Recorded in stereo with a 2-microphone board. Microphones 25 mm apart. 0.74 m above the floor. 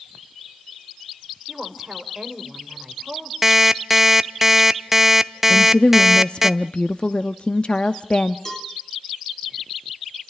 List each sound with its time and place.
1.5 s a woman speaking: 10° right (ahead or behind), 3 m
3.4 s an alarm clock: 10° right (ahead or behind), 0.6 m
5.5 s a woman speaking: 45° left (ahead or behind), 0.8 m
8.4 s a cowbell: 25° left (ahead or behind), 3.5 m